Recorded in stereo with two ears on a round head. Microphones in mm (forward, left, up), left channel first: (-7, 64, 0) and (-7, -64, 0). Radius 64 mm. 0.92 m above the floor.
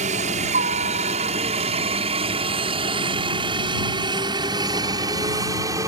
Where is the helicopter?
55° right (ahead or behind); by 5.9 s 25° right (ahead or behind).